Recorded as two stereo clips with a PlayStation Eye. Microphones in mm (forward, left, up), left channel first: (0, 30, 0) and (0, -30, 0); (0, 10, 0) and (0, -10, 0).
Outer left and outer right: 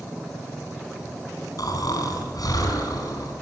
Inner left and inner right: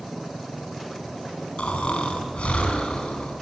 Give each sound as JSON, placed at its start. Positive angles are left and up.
{"t": 1.6, "sound": "snoring", "side_deg": 75, "distance_m": 5.0}